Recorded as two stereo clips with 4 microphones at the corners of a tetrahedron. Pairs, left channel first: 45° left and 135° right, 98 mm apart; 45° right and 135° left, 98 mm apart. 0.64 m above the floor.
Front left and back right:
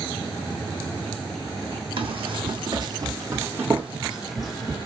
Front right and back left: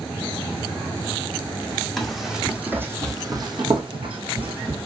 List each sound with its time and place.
2.0 s running footsteps: 130° right, 1.3 m; by 4.8 s 130° left, 1.5 m